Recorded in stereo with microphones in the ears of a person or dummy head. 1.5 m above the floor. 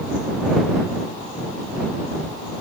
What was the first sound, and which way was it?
Only background noise.